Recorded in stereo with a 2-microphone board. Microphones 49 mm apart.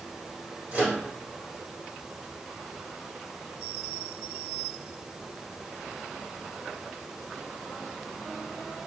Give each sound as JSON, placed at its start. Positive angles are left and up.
{"t": 0.7, "sound": "a microwave", "side_deg": -35, "distance_m": 1.9}